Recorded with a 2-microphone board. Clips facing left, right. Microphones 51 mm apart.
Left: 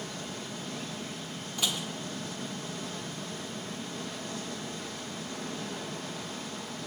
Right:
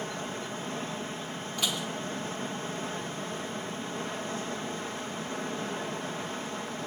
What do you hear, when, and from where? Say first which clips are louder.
0.0 s running water: right 4 dB; 35° right (ahead or behind), 2.5 m
1.6 s dishes clattering: right 1 dB; centre (ahead or behind), 2.5 m